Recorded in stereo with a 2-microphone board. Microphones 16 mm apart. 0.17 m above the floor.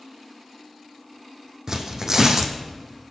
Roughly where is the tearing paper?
Right.